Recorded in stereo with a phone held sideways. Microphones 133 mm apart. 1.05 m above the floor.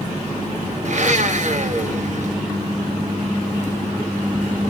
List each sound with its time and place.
0.8 s a blender: 60° right (ahead or behind), 1.1 m